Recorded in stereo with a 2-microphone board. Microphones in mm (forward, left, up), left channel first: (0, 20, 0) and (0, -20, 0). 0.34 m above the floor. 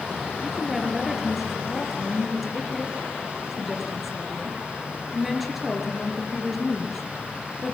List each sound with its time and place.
0.4 s a woman speaking: 5° right (ahead or behind), 6 m